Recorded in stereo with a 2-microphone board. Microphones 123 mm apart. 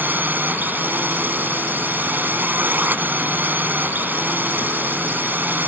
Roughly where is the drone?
Centre.